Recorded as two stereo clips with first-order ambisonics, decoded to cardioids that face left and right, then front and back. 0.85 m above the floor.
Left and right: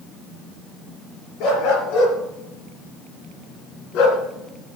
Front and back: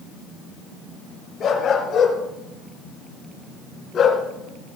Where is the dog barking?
60° left, 4.5 m.